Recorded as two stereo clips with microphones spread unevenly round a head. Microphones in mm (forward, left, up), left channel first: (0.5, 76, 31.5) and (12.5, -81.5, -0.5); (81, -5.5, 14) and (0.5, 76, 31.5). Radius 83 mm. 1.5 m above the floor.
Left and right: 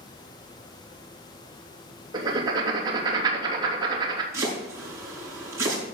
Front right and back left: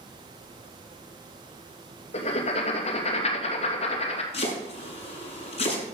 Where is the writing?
20° right, 3 m.